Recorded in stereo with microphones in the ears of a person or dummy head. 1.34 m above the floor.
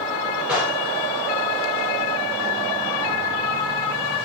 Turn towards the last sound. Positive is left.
turn(degrees=-5)  # may be behind; listen again after turning